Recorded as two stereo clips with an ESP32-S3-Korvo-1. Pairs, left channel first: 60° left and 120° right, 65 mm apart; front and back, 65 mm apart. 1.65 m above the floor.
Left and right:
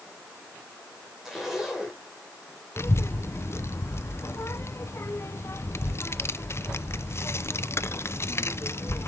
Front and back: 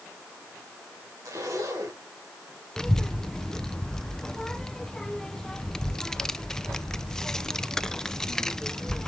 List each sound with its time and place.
1.2 s a zipper: 155° left, 3.5 m
2.8 s a child speaking: 75° left, 0.7 m